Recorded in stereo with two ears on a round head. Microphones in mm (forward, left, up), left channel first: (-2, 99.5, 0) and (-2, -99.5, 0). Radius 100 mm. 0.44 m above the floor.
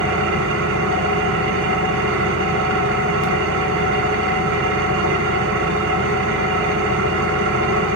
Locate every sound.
0.0 s an engine running: 60° right (ahead or behind), 2.0 m